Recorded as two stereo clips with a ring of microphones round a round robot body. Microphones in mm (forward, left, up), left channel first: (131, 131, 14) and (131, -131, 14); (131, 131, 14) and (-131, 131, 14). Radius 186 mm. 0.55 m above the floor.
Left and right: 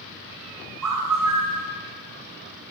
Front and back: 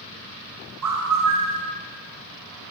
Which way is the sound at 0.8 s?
135° right.